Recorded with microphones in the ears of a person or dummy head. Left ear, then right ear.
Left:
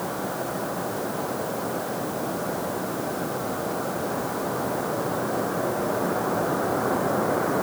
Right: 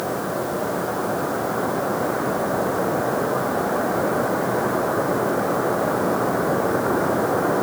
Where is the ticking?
No ticking in this recording.